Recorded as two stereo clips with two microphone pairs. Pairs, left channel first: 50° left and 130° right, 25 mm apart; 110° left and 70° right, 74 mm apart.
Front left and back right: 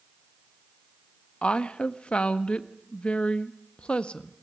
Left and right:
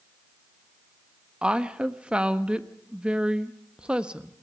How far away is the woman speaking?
About 1.3 m.